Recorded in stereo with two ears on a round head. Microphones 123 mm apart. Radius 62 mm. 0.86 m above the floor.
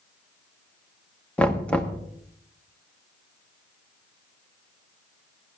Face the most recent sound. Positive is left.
turn(degrees=10)  # may be behind; listen again after turning